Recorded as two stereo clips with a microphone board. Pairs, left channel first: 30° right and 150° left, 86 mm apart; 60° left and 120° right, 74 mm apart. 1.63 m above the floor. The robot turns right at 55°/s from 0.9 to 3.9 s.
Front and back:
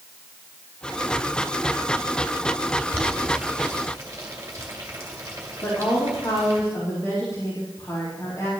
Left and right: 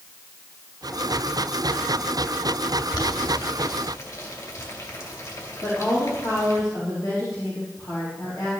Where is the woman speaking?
20° left, 4 m.